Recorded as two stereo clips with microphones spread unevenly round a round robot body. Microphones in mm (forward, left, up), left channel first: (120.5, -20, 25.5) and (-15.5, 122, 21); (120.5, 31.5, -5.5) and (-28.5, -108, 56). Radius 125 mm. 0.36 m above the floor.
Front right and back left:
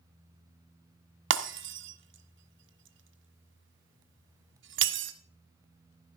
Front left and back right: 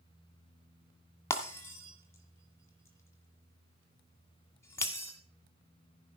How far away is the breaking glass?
About 1.5 m.